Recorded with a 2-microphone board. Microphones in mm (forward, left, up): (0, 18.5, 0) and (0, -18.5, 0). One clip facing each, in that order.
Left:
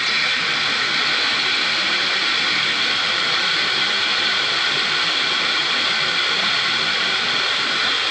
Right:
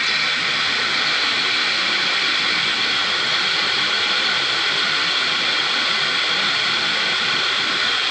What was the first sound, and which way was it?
Only background noise.